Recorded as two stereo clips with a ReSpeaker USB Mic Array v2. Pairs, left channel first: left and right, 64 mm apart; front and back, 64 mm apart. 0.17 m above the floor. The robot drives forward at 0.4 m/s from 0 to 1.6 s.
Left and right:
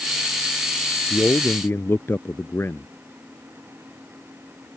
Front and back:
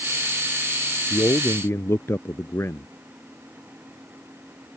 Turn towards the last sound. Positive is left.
turn(degrees=45)